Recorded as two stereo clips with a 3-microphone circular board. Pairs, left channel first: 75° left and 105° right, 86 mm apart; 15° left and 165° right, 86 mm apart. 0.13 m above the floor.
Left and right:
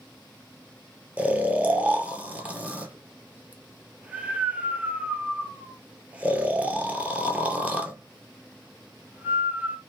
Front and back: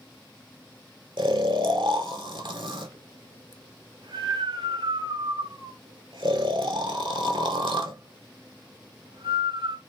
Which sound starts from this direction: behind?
Snoring, at 1.2 s.